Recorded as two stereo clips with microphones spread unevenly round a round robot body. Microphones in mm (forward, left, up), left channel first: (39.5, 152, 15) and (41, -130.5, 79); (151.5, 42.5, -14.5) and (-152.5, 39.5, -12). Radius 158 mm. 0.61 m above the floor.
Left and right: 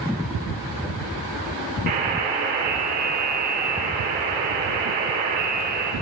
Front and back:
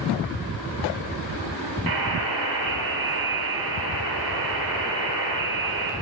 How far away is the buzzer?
About 2.0 m.